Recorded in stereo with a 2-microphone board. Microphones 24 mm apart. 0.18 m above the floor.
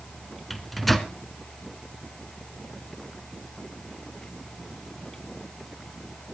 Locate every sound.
0.5 s a microwave: 5° left (ahead or behind), 1.4 m